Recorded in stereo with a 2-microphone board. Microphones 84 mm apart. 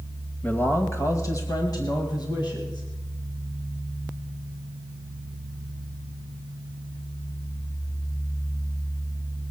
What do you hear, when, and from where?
0.4 s a man speaking: 20° left (ahead or behind), 1.3 m; by 2.9 s 60° left (ahead or behind), 2.5 m